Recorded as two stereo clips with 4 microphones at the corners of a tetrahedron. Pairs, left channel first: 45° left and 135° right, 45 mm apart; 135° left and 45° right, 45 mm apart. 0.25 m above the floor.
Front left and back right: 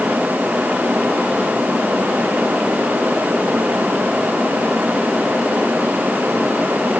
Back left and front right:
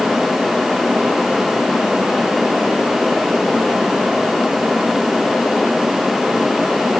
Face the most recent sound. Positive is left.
No sound to turn to.